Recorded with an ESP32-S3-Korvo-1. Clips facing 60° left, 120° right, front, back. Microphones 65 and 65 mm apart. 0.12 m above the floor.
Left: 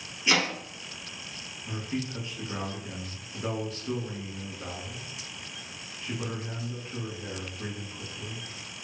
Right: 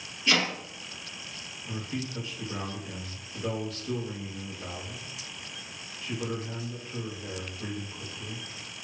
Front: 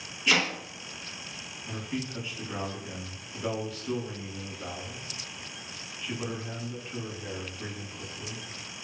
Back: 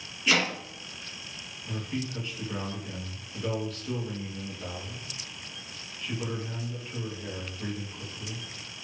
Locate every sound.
0.3 s chopping: 95° left, 1.2 m
1.7 s a man speaking: 60° left, 1.5 m